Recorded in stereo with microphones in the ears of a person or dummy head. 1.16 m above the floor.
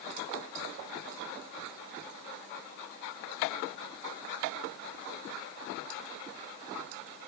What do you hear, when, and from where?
Only background noise.